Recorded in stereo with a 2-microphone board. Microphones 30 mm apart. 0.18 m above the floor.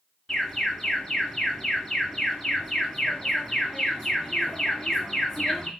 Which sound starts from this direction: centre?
An alarm, at 0.3 s.